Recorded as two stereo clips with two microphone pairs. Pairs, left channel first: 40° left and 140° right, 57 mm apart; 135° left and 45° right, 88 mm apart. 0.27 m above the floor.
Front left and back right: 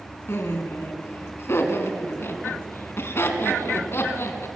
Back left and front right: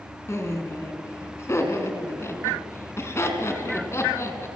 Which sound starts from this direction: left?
Laughter, at 0.3 s.